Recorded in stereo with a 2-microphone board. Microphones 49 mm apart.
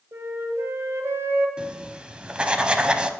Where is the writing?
20° right (ahead or behind), 0.6 m.